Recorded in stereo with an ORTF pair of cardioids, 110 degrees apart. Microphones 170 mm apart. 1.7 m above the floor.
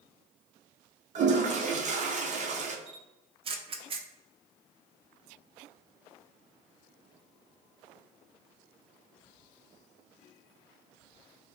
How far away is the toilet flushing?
About 0.8 m.